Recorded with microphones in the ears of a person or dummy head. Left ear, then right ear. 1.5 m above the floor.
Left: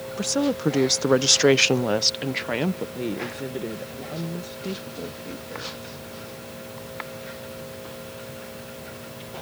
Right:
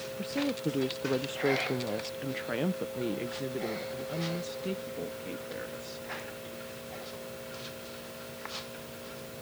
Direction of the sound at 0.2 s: 50° left (ahead or behind).